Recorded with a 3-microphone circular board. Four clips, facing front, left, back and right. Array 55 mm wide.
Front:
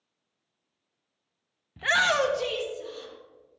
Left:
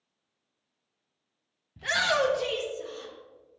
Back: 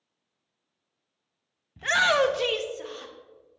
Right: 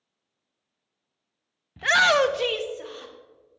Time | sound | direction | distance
1.8 | a shout | 65° right | 0.6 m